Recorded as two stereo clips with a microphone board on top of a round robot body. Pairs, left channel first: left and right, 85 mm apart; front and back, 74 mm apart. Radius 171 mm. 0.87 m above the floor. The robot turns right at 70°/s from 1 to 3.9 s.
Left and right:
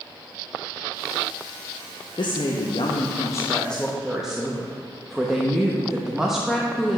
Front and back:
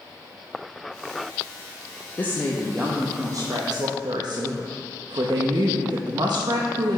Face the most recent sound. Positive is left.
turn(degrees=-175)